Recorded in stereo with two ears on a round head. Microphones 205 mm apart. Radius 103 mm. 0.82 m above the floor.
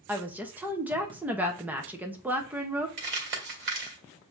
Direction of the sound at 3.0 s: 50° right (ahead or behind).